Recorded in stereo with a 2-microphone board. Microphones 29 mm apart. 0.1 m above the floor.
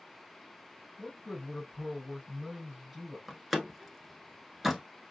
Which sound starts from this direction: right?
A man speaking, at 1.0 s.